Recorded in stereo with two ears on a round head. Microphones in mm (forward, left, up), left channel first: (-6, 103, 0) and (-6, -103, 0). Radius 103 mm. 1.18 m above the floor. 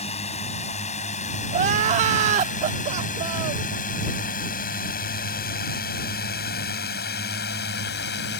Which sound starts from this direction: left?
A drone, at 0.0 s.